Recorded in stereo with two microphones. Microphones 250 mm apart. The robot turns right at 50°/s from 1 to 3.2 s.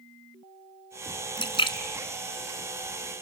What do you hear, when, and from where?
1.4 s a splash: 20° left (ahead or behind), 1.3 m; by 3.1 s centre (ahead or behind), 1.3 m